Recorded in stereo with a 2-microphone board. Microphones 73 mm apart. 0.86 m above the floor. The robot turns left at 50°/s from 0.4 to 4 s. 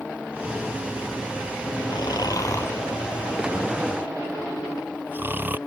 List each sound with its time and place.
1.9 s snoring: 75° left (ahead or behind); by 5.6 s 30° right (ahead or behind)